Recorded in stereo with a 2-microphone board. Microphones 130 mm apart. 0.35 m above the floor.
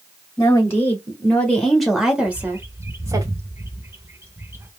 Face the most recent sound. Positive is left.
turn(degrees=-20)  # may be behind; listen again after turning